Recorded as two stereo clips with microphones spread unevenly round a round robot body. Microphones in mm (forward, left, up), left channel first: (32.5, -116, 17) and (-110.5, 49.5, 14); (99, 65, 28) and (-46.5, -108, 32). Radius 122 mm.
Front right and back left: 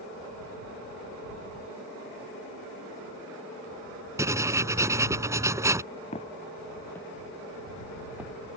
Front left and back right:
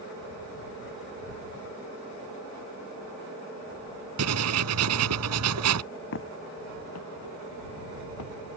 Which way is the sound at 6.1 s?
20° left.